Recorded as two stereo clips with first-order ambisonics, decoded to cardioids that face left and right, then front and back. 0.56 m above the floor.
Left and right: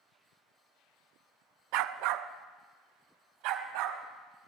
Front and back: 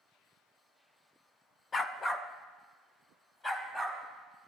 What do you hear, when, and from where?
1.7 s a dog barking: 70° right, 0.5 m; by 4.0 s 75° right, 1.7 m